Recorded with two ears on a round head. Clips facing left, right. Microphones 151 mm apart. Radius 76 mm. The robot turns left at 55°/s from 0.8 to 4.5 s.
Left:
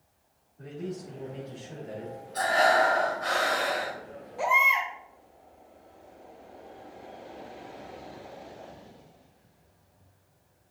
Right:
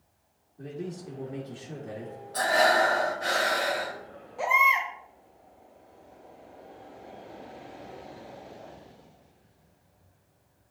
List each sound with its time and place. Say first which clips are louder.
0.6 s a man speaking: even; 35° right, 1.6 m; by 2.2 s 110° right, 1.6 m
2.3 s breathing: even; 95° right, 1.9 m; by 4.0 s 175° left, 1.9 m
4.4 s a baby crying: right 1 dB; centre (ahead or behind), 1.8 m; by 4.9 s 5° right (ahead or behind), 1.8 m